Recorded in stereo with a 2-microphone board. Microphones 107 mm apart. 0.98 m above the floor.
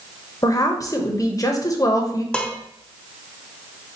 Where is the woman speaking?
35° left (ahead or behind), 0.7 m.